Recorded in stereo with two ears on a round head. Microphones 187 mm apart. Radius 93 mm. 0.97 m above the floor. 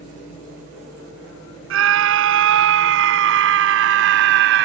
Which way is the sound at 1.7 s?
70° right (ahead or behind).